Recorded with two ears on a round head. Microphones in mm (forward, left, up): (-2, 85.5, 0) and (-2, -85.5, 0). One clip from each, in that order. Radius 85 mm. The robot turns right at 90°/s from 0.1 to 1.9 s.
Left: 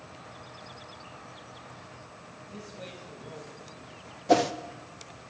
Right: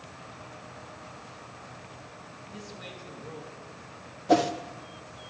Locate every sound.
2.5 s a man speaking: 5° left (ahead or behind), 5.5 m
4.3 s a whoosh: 15° left (ahead or behind), 0.6 m